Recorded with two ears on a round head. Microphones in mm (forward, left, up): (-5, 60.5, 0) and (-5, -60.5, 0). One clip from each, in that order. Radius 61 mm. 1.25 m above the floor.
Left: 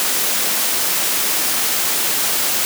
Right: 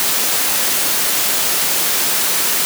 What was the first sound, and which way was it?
Only background noise.